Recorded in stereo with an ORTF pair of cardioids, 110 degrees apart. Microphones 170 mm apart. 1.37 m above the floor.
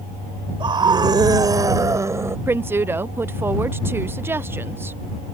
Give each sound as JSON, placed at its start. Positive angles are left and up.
{"t": 0.6, "sound": "a scream", "azimuth_deg": -30}
{"t": 2.5, "sound": "a woman speaking", "azimuth_deg": -15}